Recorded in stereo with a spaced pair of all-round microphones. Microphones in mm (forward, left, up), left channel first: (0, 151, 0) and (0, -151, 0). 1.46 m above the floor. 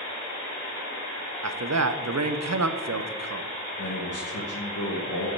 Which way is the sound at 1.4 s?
60° right (ahead or behind).